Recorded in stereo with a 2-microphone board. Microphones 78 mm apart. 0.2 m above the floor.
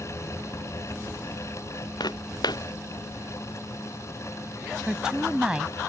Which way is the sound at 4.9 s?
10° right (ahead or behind).